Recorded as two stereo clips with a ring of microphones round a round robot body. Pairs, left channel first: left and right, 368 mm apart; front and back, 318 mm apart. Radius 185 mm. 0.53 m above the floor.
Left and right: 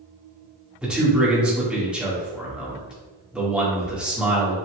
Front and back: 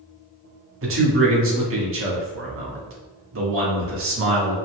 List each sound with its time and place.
0.8 s a man speaking: 175° right, 1.3 m